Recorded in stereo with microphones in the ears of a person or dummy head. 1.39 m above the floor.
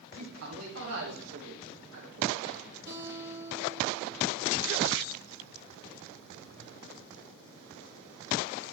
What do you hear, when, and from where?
0.1 s a man speaking: 80° right, 1.5 m; by 2.4 s 85° right, 3 m
2.9 s a guitar: 25° right (ahead or behind), 2.5 m